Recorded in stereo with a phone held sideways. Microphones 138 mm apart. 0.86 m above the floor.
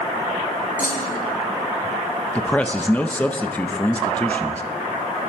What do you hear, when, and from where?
0.8 s a clunk: 80° left, 1.8 m
2.4 s a man speaking: 10° left (ahead or behind), 0.7 m